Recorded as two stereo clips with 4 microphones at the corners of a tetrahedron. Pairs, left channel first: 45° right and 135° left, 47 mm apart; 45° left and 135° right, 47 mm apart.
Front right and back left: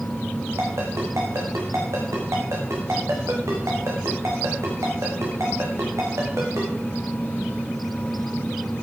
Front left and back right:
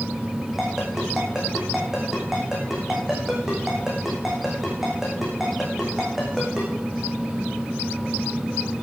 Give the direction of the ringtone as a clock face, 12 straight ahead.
7 o'clock.